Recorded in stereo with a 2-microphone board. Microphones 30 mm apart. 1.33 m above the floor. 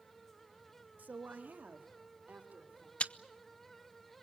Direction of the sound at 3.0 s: 40° left (ahead or behind).